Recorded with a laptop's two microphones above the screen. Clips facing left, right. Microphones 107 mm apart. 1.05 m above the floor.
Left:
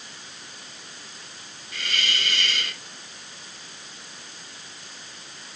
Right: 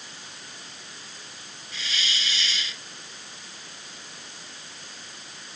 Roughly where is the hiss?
Left.